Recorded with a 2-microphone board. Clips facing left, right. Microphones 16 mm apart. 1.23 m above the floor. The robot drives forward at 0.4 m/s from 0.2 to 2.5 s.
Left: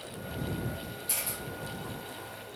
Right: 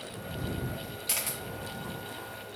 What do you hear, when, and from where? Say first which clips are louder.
1.1 s a camera shutter: right 3 dB; 70° right (ahead or behind), 0.8 m; by 1.4 s 75° right (ahead or behind), 0.8 m